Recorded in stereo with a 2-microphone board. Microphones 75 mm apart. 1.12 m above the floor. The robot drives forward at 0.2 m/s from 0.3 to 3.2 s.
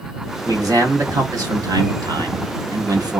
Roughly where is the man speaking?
Right.